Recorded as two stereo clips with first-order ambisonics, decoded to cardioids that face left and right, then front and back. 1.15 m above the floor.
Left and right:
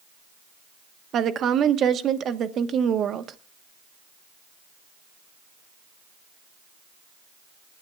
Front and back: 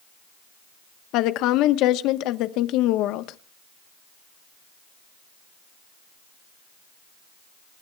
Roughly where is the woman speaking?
Ahead right.